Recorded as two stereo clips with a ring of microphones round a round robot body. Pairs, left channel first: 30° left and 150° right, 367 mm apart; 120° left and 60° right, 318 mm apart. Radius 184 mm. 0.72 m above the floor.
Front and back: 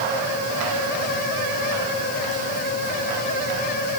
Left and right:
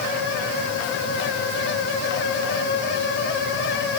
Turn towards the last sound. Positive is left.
No sound to turn to.